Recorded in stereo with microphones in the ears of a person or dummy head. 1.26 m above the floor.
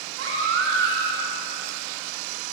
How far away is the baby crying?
About 3.5 m.